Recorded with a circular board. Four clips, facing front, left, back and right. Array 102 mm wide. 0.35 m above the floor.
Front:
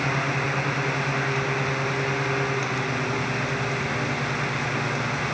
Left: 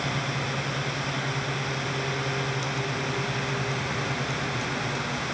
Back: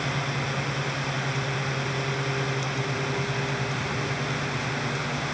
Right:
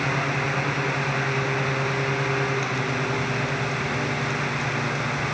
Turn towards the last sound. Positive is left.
No sound to turn to.